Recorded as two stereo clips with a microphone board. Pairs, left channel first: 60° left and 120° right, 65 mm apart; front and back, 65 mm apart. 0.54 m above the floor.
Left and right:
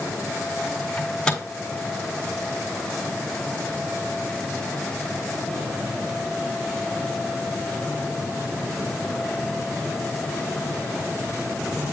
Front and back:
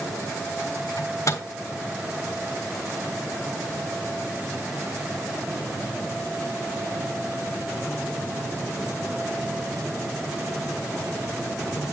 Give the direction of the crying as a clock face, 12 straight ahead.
No crying in this recording.